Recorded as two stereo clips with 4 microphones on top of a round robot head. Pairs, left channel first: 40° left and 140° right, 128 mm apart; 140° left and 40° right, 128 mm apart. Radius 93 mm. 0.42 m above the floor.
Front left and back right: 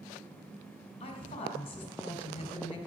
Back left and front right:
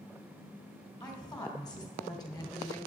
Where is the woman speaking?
85° left, 2.5 m.